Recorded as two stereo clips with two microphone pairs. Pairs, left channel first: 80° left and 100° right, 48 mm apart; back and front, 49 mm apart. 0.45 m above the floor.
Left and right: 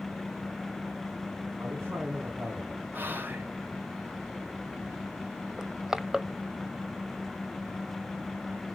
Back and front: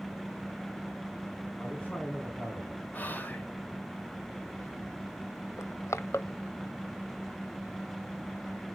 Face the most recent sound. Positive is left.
turn(degrees=180)